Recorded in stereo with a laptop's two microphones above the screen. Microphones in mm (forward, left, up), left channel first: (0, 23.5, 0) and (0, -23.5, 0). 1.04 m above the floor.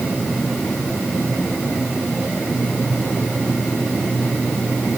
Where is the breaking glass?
No breaking glass in this recording.